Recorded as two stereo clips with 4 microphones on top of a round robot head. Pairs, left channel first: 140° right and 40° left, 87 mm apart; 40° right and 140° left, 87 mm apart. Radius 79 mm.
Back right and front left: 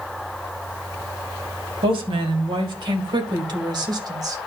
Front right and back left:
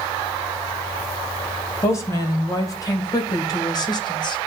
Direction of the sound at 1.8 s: 15° left.